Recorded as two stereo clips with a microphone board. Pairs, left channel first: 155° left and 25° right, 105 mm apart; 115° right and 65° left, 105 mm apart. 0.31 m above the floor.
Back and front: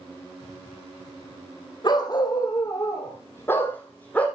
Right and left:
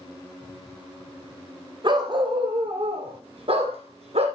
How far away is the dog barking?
About 4 m.